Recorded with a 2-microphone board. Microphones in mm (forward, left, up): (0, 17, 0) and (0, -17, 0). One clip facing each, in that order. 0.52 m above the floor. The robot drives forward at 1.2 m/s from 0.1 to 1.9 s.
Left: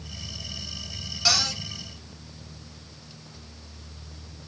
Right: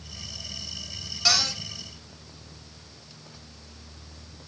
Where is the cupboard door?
5° left (ahead or behind), 1.4 m.